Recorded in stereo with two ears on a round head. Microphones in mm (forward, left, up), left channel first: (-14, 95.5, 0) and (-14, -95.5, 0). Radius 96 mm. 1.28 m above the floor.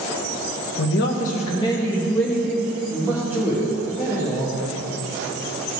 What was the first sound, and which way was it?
A man speaking, 65° left (ahead or behind).